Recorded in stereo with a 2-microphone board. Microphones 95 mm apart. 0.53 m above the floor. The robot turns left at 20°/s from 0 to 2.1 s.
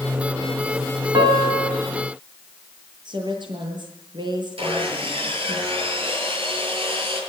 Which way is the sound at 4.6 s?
75° right (ahead or behind).